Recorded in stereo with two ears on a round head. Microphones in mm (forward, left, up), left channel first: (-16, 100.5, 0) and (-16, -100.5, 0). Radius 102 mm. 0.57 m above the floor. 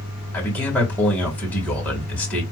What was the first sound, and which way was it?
A man speaking, 5° left (ahead or behind).